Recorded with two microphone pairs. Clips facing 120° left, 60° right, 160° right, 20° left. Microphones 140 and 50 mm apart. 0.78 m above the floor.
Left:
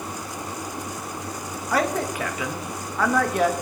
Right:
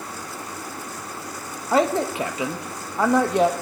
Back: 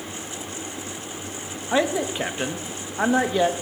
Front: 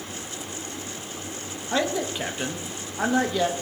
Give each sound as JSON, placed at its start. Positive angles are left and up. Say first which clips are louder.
{"t": 1.7, "sound": "a man speaking", "louder": "right 4 dB, back 3 dB", "azimuth_deg": -100, "distance_m": 0.7}